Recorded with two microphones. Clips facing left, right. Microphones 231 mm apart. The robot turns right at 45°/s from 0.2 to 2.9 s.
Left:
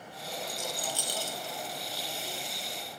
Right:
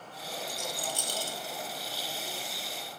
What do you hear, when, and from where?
0.5 s a rattle: 75° right (ahead or behind), 1.3 m; by 1.4 s 35° right (ahead or behind), 1.3 m